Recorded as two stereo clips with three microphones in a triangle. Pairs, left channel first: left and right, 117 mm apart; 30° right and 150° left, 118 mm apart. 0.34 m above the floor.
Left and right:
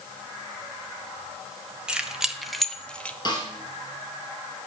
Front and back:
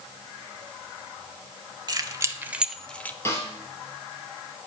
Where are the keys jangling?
170° right, 1.2 m; by 3.1 s 25° left, 0.9 m.